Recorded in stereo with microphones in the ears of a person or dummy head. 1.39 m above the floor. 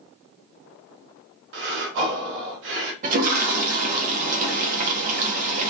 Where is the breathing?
65° right (ahead or behind), 0.8 m.